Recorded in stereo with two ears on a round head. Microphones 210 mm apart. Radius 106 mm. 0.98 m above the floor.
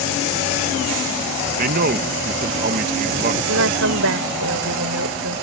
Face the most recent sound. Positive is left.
turn(degrees=-60)  # may be behind; listen again after turning